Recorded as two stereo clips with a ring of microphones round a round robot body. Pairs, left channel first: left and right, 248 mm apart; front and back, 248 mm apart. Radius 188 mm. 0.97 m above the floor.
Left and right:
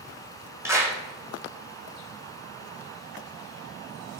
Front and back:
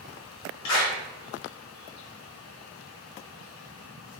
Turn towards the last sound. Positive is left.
turn(degrees=-10)